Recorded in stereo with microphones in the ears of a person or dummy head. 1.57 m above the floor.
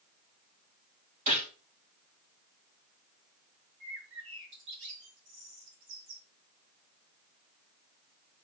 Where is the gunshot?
40° right (ahead or behind), 7 m.